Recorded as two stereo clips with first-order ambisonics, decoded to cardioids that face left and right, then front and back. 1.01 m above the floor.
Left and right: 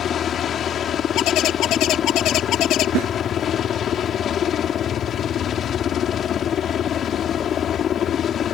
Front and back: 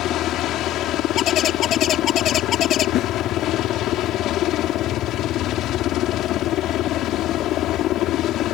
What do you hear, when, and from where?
0.0 s a helicopter: 35° left
1.2 s a bird: 50° left
3.0 s a snare drum: 45° right